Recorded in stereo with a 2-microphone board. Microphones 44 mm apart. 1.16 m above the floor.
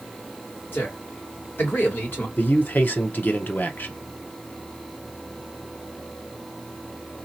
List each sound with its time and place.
0.7 s a man speaking: 50° left (ahead or behind), 2.5 m
2.4 s a man speaking: 45° left (ahead or behind), 0.8 m